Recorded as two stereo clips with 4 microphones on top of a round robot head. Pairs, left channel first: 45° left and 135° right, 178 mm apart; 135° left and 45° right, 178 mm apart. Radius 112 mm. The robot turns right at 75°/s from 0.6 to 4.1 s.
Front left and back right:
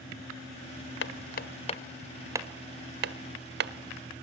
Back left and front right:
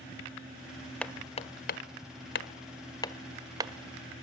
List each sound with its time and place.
1.0 s hammering: 50° left, 1.4 m; by 3.7 s 105° right, 1.4 m